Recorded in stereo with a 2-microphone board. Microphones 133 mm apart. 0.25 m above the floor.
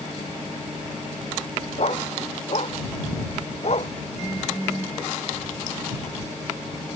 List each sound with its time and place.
1.8 s a dog barking: 50° left (ahead or behind)